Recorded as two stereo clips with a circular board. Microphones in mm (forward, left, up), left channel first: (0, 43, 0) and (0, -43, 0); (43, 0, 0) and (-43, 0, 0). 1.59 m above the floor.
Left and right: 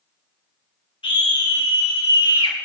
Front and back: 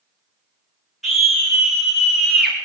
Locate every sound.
1.0 s a scream: 90° left, 5.5 m